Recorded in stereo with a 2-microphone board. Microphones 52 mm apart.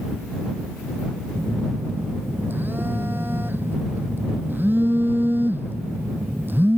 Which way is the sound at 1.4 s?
40° right (ahead or behind).